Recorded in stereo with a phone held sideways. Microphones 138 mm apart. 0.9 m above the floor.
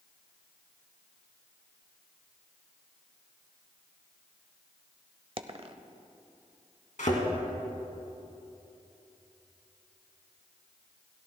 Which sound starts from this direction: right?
A dropped coin, at 5.4 s.